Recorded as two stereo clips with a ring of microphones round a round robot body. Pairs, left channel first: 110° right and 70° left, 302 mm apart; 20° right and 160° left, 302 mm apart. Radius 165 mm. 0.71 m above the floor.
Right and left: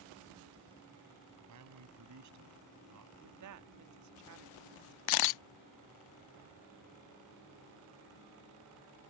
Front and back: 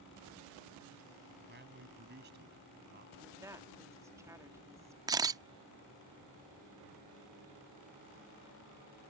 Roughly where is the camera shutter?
Behind right.